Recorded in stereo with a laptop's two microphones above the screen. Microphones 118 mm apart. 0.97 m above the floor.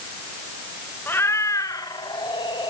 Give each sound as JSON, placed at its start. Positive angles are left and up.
{"t": 1.1, "sound": "a cat meowing", "side_deg": 20, "distance_m": 1.2}